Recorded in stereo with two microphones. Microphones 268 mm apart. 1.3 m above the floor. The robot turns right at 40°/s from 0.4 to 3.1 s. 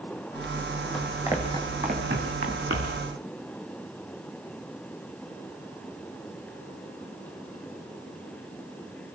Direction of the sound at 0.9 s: 5° left (ahead or behind).